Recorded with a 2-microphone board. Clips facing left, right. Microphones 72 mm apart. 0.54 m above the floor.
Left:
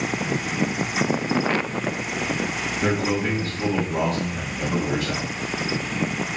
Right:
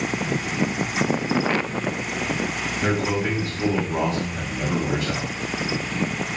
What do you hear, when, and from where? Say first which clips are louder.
2.8 s a man speaking: even; 5° left (ahead or behind), 1.3 m; by 5.3 s 40° right (ahead or behind), 1.8 m